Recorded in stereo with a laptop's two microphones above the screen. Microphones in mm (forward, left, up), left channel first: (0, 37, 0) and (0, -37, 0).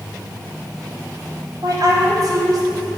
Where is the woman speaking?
60° right (ahead or behind), 2.5 m.